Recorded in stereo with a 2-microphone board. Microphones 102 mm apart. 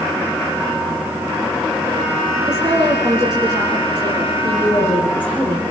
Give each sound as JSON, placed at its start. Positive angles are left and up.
{"t": 2.5, "sound": "a woman speaking", "side_deg": -40, "distance_m": 4.5}
{"t": 4.4, "sound": "a woman speaking", "side_deg": 15, "distance_m": 9.0}